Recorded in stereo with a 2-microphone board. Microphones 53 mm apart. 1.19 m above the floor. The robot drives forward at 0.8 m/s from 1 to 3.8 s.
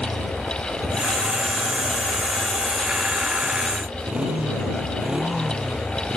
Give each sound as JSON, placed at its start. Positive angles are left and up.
{"t": 0.0, "sound": "a motorcycle", "side_deg": -25}